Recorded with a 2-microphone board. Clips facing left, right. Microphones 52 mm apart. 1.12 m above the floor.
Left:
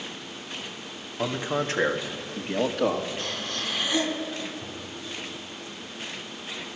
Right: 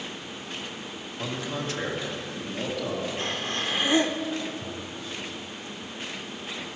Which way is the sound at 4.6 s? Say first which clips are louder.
Right 2 dB; 10° right (ahead or behind).